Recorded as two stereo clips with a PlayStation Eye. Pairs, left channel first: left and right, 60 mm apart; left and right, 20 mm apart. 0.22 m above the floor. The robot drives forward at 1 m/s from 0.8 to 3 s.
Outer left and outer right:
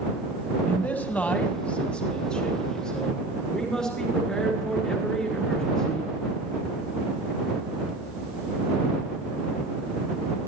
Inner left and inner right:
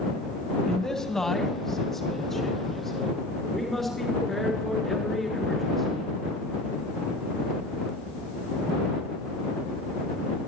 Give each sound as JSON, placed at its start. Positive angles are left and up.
{"t": 0.7, "sound": "a man speaking", "side_deg": 30, "distance_m": 1.2}